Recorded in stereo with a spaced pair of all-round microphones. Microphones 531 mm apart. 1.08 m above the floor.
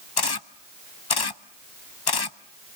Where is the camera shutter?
45° left (ahead or behind), 0.8 m.